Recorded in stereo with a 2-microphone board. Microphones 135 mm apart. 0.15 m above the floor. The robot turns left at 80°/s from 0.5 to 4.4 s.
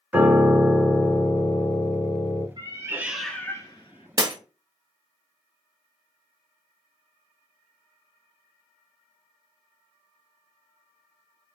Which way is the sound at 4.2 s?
30° right (ahead or behind).